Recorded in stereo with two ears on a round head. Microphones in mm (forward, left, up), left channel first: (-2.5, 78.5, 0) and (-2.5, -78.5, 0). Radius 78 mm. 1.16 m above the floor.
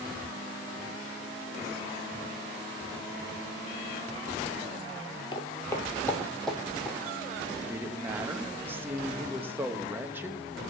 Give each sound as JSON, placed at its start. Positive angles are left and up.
{"t": 5.3, "sound": "footsteps", "side_deg": 30, "distance_m": 1.4}
{"t": 7.7, "sound": "a woman speaking", "side_deg": -10, "distance_m": 1.2}